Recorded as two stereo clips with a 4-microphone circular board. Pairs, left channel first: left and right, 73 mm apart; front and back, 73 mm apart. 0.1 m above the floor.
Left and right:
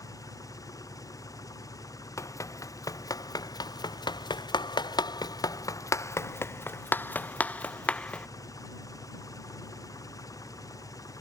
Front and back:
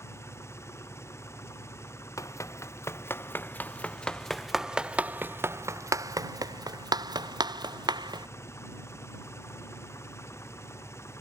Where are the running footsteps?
45° left; by 8.3 s 165° left.